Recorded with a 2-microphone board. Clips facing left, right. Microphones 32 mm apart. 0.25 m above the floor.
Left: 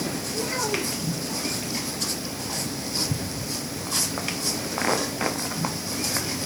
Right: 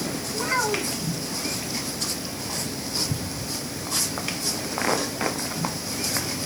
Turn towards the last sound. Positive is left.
turn(degrees=-50)  # may be behind; listen again after turning